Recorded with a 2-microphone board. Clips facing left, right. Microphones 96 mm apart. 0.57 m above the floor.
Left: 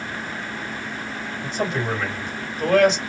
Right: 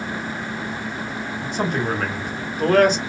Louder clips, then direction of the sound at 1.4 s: Right 1 dB; 55° right (ahead or behind).